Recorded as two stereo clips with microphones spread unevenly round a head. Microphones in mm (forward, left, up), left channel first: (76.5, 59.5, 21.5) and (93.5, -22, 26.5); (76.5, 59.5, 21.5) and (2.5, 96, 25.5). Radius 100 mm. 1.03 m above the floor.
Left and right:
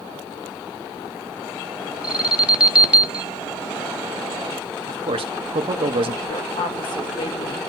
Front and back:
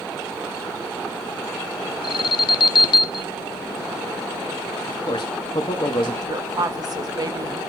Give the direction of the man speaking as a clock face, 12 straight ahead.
3 o'clock.